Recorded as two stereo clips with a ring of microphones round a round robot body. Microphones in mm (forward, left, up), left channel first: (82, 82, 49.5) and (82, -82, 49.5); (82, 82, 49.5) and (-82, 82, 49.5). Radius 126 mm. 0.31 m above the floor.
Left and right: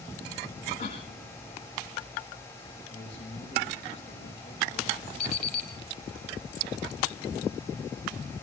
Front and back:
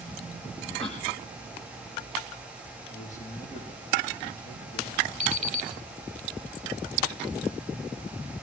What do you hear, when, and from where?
0.8 s a cough: 50° left, 4.5 m
2.9 s a man speaking: 40° left, 8 m
5.2 s an alarm clock: 135° left, 2.5 m